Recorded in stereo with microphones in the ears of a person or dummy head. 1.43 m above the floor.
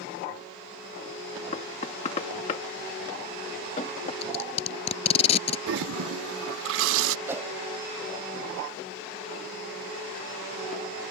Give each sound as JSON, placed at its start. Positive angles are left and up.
{"t": 1.5, "sound": "knocking", "side_deg": 40}
{"t": 4.2, "sound": "tape being pulled", "side_deg": 40}
{"t": 5.7, "sound": "a toilet flushing", "side_deg": -65}
{"t": 7.3, "sound": "a whoosh", "side_deg": -10}